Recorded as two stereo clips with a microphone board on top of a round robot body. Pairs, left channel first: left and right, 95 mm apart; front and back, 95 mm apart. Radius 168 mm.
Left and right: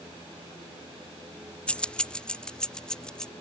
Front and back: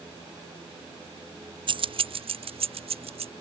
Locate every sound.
1.7 s keys jangling: 165° left; by 3.3 s 170° left